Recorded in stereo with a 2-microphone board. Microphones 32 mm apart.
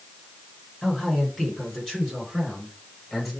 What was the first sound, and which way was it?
A man speaking, centre (ahead or behind).